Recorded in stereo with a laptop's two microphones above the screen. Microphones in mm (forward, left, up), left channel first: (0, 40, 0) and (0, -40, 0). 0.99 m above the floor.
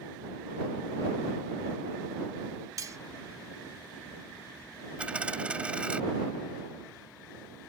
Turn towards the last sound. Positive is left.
turn(degrees=-15)  # may be behind; listen again after turning